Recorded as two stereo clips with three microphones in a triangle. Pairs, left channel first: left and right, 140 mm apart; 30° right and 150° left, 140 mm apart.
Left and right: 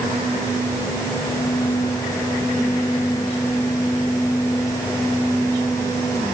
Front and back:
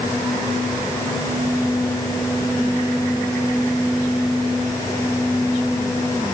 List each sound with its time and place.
Only background noise.